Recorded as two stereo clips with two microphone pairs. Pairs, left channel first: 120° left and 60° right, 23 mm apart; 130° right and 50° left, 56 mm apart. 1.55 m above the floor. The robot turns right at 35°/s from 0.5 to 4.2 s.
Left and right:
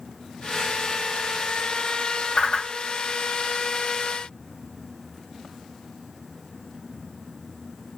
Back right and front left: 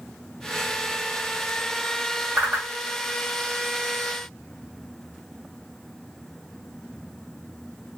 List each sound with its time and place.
2.4 s a whoosh: 105° left, 1.9 m; by 2.7 s 115° left, 1.9 m